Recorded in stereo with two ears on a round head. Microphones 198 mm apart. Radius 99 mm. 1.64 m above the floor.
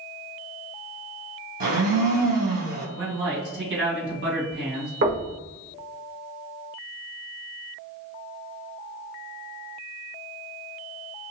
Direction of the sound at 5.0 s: 50° right (ahead or behind).